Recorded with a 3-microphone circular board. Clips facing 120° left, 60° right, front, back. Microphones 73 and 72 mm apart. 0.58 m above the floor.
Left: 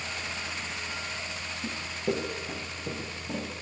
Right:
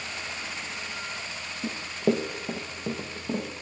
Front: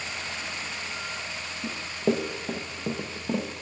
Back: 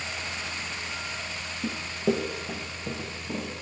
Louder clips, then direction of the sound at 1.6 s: Right 6 dB, front 1 dB; 105° right.